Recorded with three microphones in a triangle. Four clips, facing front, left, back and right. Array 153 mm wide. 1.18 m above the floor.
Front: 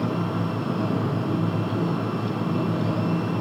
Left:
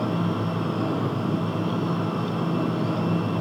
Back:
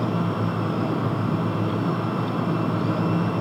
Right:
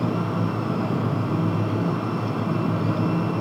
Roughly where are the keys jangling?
I don't hear keys jangling.